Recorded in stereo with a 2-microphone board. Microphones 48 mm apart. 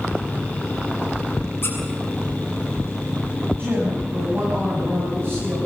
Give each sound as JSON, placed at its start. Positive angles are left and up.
{"t": 1.6, "sound": "a squeak", "side_deg": 50, "distance_m": 5.5}
{"t": 3.6, "sound": "a woman speaking", "side_deg": -45, "distance_m": 6.5}